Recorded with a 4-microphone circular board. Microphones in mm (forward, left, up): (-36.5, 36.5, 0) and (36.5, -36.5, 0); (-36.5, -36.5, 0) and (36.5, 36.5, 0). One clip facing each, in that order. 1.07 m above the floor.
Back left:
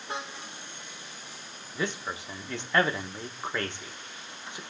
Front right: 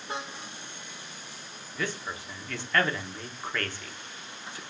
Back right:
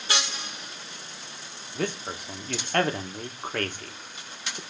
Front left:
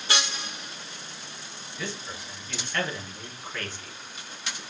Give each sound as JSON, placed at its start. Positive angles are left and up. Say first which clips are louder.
{"t": 1.8, "sound": "a man speaking", "louder": "back left 2 dB, back right 7 dB", "azimuth_deg": -155, "distance_m": 1.1}